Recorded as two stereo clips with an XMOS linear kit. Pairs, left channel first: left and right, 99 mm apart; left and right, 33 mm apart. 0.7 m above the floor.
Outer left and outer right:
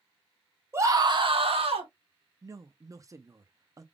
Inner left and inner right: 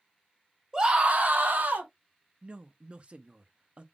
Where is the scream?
25° right (ahead or behind), 1.3 m; by 1.9 s 75° right (ahead or behind), 1.9 m.